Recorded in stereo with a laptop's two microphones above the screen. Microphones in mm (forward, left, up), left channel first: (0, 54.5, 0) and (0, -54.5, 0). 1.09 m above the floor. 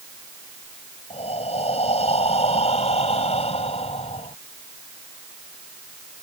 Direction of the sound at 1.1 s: 80° left.